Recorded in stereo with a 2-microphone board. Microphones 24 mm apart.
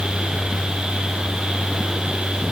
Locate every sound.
Only background noise.